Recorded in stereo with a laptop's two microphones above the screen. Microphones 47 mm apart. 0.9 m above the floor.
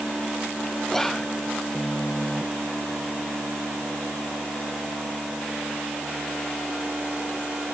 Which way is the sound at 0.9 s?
10° left (ahead or behind).